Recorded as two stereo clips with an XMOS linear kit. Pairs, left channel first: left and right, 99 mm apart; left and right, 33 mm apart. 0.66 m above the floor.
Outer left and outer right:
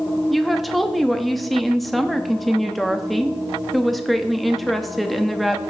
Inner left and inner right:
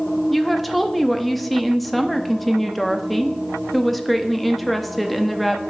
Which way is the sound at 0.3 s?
Centre (ahead or behind).